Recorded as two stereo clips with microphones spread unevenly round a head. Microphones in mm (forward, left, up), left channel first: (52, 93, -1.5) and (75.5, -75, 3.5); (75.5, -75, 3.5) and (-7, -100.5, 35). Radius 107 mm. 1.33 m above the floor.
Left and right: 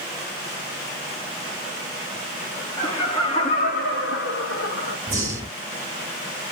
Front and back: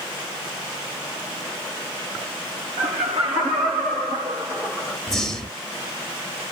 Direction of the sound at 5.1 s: 120° right.